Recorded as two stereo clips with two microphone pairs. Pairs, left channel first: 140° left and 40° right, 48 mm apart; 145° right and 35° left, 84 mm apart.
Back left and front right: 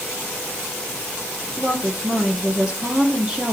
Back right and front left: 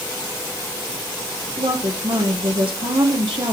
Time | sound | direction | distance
1.6 | a woman speaking | 30° left | 1.8 m